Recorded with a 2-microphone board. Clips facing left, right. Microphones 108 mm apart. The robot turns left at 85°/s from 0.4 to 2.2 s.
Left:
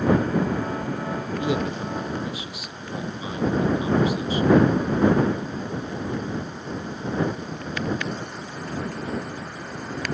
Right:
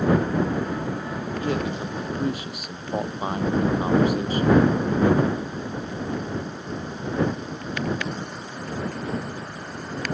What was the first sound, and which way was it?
A man speaking, 20° left.